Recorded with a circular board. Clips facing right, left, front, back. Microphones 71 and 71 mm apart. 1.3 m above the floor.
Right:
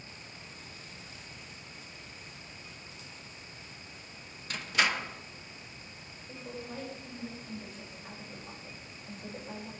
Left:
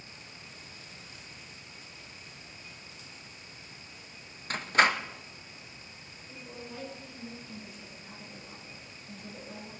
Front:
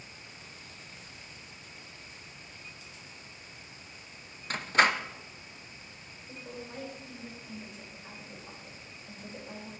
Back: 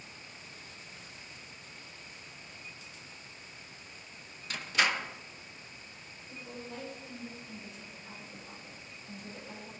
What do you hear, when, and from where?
4.5 s a door slam: 45° left, 0.8 m
6.3 s a woman speaking: 50° right, 6 m